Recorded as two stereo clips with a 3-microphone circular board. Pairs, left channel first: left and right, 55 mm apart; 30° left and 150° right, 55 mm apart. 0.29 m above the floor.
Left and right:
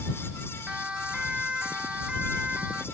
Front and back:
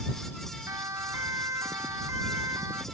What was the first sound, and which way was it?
A siren, 165° right.